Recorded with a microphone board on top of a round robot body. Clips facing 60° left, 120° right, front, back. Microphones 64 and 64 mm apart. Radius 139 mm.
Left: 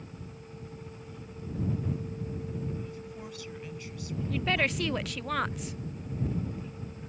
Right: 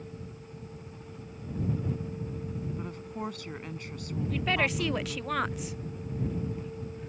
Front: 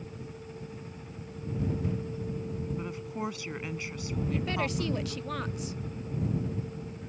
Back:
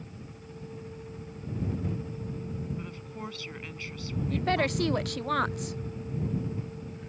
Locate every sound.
2.8 s a woman speaking: 75° right
4.3 s a woman speaking: 150° left